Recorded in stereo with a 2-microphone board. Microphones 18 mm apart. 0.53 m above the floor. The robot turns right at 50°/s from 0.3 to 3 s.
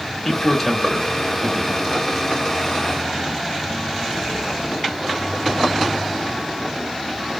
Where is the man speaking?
25° left (ahead or behind), 1.0 m; by 2.0 s 40° right (ahead or behind), 1.0 m.